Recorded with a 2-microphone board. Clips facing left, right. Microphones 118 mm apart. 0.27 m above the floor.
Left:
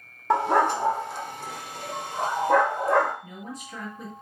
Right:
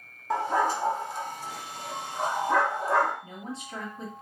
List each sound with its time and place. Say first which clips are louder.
0.3 s a dog barking: left 4 dB; 75° left (ahead or behind), 0.6 m; by 3.1 s 55° left (ahead or behind), 2 m
3.2 s a woman speaking: even; 30° right (ahead or behind), 2 m